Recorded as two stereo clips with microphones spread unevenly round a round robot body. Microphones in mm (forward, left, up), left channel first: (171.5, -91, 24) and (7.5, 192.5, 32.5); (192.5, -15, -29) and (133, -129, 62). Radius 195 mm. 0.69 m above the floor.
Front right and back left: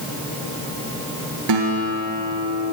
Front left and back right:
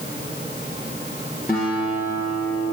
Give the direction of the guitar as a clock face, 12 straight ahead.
7 o'clock.